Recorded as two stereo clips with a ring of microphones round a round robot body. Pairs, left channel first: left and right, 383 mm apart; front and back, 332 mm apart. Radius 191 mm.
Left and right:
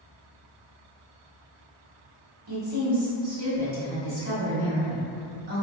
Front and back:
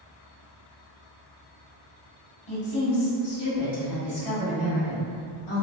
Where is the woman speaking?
45° right, 1.3 m.